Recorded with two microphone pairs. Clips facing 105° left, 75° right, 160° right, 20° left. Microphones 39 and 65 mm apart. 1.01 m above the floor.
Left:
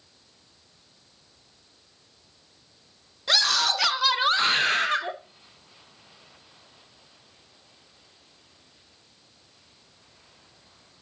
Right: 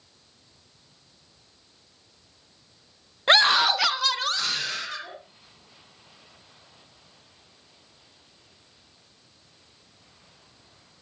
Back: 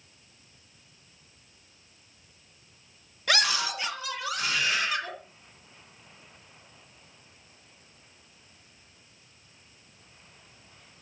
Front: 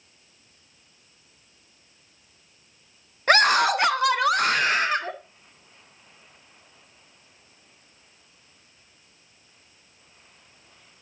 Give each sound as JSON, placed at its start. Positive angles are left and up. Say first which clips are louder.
{"t": 3.3, "sound": "a scream", "louder": "right 5 dB, front 10 dB", "azimuth_deg": -30, "distance_m": 0.8}